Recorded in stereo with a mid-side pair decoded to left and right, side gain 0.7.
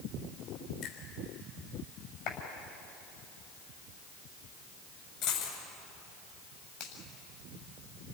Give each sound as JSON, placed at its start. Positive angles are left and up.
{"t": 0.8, "sound": "a finger snap", "azimuth_deg": 60, "distance_m": 6.5}
{"t": 2.3, "sound": "a clap", "azimuth_deg": 60, "distance_m": 8.0}
{"t": 5.2, "sound": "a dropped coin", "azimuth_deg": 65, "distance_m": 8.0}
{"t": 6.8, "sound": "a finger snap", "azimuth_deg": 60, "distance_m": 7.5}